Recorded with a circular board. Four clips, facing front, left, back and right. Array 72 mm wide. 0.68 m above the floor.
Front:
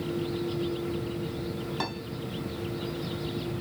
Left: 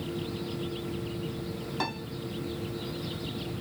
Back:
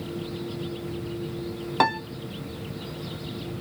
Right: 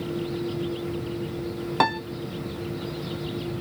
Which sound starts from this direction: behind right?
A piano, at 1.8 s.